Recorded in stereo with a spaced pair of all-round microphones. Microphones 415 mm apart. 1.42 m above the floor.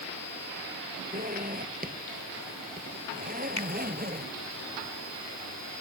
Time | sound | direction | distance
1.1 | a zipper | 20° right (ahead or behind) | ?
3.6 | a finger snap | 40° right (ahead or behind) | ?